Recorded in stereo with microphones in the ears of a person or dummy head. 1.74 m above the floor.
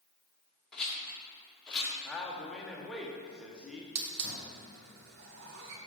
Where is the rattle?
15° left (ahead or behind), 2.5 m.